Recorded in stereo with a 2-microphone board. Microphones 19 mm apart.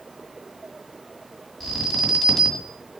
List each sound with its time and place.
1.6 s an alarm: 20° left (ahead or behind), 1.8 m